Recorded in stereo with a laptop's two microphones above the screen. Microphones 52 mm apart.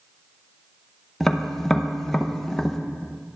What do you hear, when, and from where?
1.2 s tapping: 5° left (ahead or behind), 0.7 m